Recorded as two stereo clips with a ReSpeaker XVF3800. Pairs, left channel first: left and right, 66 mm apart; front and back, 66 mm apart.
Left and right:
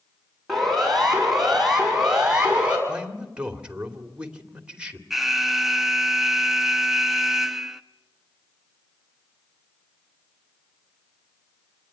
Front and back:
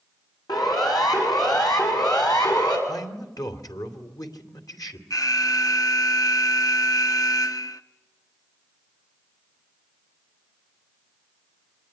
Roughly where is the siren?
Ahead.